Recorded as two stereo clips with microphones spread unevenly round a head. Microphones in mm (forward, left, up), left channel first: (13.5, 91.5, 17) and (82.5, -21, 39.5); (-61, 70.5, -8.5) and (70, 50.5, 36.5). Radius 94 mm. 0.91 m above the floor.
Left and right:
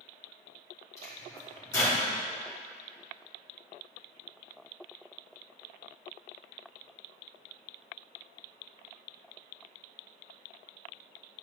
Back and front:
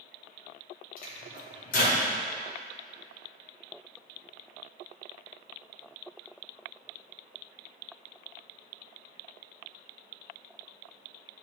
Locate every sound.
1.0 s a microwave: 165° right, 1.5 m